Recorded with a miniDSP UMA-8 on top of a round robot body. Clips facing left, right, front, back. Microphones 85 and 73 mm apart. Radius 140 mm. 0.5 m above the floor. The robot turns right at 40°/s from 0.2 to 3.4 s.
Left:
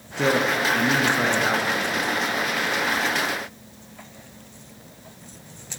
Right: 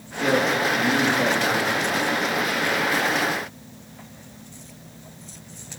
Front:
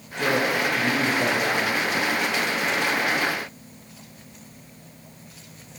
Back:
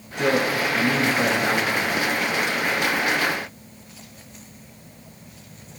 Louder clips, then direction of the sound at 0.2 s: Even, back 1 dB; 100° left.